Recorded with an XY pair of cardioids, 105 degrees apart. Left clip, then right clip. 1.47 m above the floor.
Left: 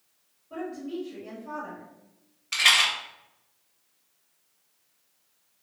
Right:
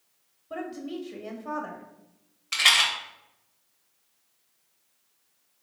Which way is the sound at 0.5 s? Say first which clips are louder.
Even; 65° right.